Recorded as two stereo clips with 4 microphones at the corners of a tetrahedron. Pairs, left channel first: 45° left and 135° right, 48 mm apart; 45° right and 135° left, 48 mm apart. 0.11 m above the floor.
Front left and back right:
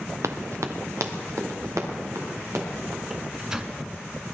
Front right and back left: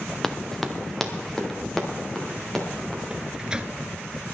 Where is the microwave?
170° left, 1.0 m.